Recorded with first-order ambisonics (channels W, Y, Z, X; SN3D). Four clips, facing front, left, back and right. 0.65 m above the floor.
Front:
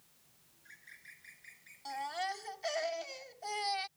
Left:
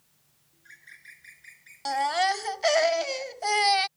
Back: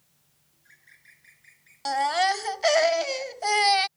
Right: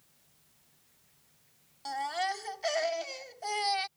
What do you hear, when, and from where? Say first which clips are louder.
0.5 s a bird: left 19 dB, even; 90° left
1.9 s a baby crying: left 8 dB, back 15 dB; 150° left